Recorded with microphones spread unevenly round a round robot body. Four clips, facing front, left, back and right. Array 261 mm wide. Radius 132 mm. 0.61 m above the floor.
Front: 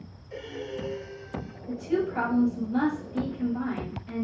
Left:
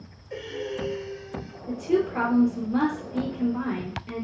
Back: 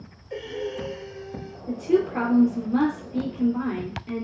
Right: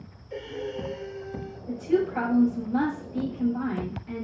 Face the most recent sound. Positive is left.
turn(degrees=155)